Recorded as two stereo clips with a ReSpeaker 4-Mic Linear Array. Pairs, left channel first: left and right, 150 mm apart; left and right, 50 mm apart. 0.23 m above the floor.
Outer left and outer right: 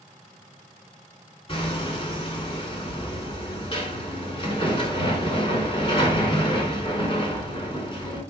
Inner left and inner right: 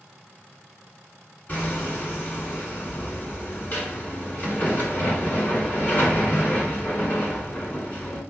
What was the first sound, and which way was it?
Hammering, 40° left (ahead or behind).